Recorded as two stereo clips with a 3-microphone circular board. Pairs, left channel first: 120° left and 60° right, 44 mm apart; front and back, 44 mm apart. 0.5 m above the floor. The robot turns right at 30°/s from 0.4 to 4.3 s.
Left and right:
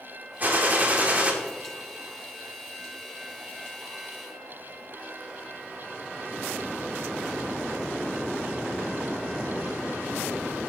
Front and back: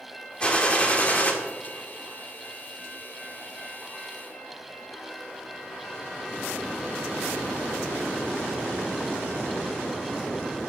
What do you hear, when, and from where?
0.4 s a gunshot: 50° right, 1.4 m; by 1.3 s 25° right, 1.4 m